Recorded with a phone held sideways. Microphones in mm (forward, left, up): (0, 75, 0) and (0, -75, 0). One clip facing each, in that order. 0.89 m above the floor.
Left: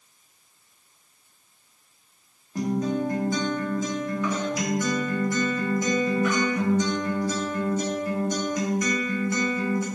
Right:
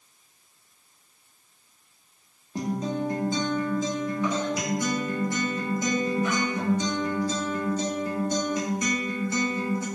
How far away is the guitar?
About 1.9 m.